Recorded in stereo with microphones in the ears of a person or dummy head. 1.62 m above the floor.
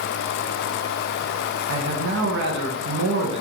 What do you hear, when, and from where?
1.7 s a man speaking: 65° right (ahead or behind), 0.6 m